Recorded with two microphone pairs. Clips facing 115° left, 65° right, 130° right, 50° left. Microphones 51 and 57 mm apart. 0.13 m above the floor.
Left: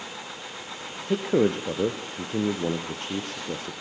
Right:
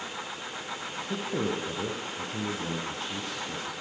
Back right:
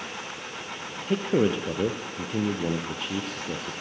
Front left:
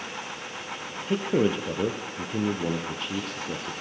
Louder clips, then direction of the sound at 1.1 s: Left 9 dB, back right 1 dB; 145° left.